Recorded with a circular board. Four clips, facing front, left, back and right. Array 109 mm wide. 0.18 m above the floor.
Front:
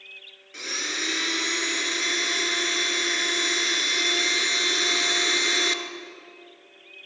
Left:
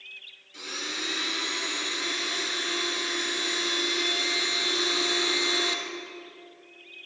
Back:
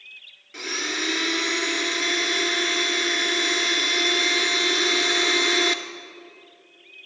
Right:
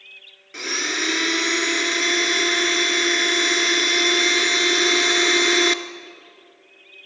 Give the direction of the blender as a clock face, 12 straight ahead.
3 o'clock.